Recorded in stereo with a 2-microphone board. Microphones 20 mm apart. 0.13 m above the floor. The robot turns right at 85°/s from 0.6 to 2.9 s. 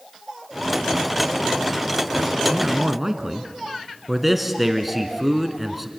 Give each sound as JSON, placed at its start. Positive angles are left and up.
{"t": 2.5, "sound": "a man speaking", "side_deg": -25, "distance_m": 1.2}
{"t": 4.1, "sound": "a man speaking", "side_deg": -10, "distance_m": 1.4}